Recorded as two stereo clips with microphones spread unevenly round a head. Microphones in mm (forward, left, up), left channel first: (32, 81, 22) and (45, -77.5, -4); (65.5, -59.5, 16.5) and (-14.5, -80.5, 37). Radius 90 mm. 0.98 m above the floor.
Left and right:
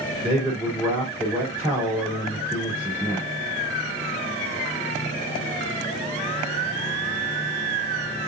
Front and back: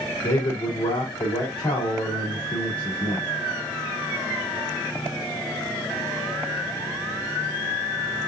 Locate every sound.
0.2 s a man speaking: 10° right, 4 m